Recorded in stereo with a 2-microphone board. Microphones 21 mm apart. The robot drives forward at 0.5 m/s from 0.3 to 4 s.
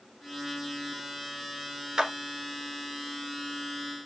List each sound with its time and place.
2.0 s a clap: 35° right (ahead or behind), 1.5 m; by 2.1 s 30° right (ahead or behind), 1.5 m